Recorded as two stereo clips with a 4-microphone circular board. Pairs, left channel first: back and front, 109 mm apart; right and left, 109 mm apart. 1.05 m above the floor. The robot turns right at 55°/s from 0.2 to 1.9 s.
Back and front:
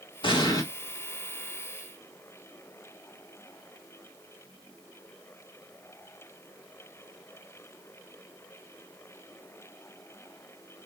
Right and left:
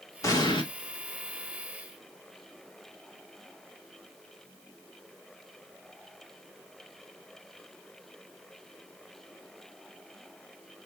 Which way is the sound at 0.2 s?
150° right.